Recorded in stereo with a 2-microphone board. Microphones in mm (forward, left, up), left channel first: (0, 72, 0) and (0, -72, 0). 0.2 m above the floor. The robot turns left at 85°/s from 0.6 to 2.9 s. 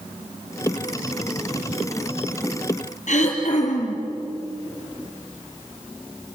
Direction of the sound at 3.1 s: 65° left (ahead or behind).